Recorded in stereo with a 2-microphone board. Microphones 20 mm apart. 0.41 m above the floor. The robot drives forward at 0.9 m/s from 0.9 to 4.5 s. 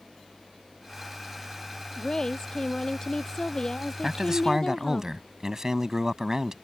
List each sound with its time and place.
2.0 s a woman speaking: 30° left (ahead or behind)
4.0 s a man speaking: 30° right (ahead or behind); by 6.5 s 25° right (ahead or behind)